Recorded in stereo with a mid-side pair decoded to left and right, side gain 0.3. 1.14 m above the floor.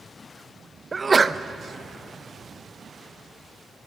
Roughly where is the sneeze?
Ahead right.